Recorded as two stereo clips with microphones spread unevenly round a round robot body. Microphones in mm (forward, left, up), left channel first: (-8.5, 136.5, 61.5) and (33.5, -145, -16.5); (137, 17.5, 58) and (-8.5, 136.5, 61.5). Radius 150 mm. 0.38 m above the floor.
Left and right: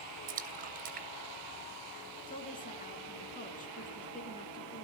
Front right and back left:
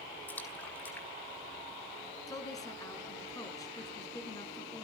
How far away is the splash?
About 2.0 m.